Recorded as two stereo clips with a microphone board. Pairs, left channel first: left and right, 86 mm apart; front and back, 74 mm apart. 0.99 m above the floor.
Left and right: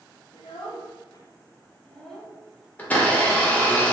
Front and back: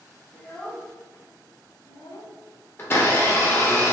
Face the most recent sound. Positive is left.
turn(degrees=30)